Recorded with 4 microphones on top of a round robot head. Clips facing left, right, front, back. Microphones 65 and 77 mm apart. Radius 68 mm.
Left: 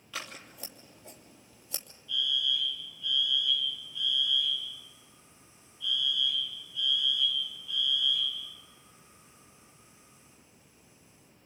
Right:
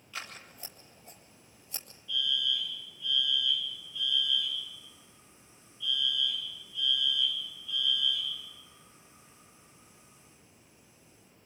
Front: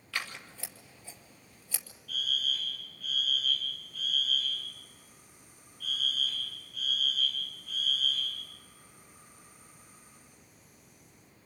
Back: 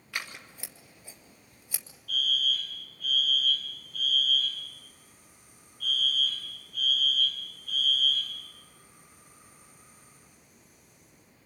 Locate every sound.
0.1 s scissors: 110° left, 3 m
2.1 s a fire alarm: 145° left, 9 m